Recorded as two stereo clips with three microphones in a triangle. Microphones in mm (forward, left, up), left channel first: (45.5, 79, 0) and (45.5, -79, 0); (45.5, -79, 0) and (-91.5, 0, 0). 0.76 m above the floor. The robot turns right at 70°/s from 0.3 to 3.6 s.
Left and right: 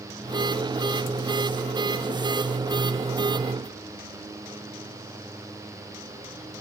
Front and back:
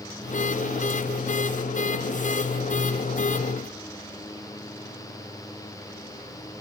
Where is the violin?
I don't hear a violin.